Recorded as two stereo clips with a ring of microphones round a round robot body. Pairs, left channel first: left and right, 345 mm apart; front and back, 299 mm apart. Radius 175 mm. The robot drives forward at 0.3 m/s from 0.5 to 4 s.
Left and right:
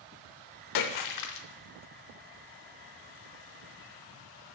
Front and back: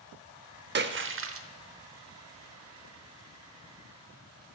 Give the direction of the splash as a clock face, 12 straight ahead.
8 o'clock.